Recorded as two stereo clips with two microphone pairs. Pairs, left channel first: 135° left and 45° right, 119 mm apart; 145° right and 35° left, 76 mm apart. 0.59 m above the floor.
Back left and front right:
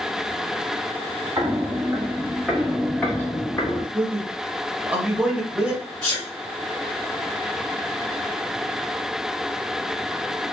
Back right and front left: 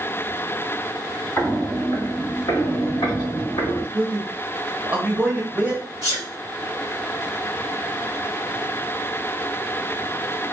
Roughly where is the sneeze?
Behind.